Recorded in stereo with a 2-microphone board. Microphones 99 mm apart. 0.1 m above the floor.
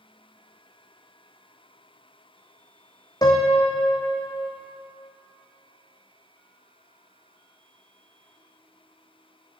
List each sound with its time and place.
3.2 s a piano: 40° left (ahead or behind), 1.3 m